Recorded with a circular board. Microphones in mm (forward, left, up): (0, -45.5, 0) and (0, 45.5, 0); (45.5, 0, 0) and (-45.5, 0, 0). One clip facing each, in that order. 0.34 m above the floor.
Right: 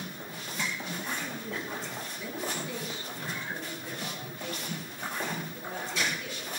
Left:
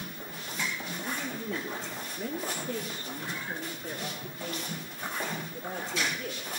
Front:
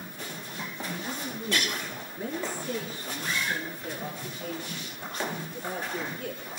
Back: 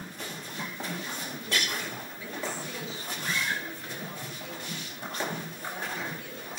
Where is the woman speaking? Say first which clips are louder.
Left 1 dB, front 4 dB; 45° left, 6 m; by 6.4 s 40° left, 8.5 m.